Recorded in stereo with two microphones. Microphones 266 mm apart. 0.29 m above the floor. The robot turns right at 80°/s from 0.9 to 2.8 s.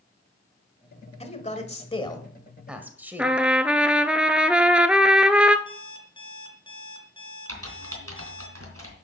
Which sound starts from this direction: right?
Typing on a keyboard, at 7.5 s.